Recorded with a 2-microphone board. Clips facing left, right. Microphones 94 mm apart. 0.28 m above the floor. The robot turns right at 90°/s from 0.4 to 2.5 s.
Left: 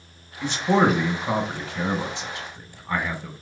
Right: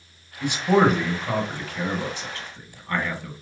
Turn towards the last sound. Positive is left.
turn(degrees=15)  # may be behind; listen again after turning